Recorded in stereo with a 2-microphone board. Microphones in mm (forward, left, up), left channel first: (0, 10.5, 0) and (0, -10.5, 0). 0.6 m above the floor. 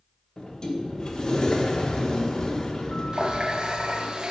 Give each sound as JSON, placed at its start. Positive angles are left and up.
{"t": 0.4, "sound": "a sliding door", "side_deg": 35, "distance_m": 1.2}
{"t": 3.1, "sound": "a running tap", "side_deg": -45, "distance_m": 0.7}